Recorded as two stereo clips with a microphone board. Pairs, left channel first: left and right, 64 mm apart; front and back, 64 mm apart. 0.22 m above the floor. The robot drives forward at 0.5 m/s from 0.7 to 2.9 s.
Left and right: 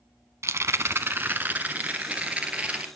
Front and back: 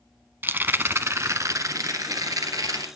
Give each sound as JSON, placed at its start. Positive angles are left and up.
{"t": 0.4, "sound": "a rattle", "azimuth_deg": -130, "distance_m": 0.6}